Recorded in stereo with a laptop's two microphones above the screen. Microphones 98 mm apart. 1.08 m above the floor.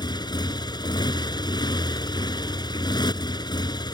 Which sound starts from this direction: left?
A motorcycle, at 0.0 s.